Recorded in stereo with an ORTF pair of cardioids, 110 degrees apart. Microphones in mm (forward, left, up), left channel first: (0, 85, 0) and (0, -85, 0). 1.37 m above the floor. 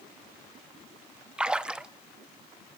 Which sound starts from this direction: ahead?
A splash, at 1.4 s.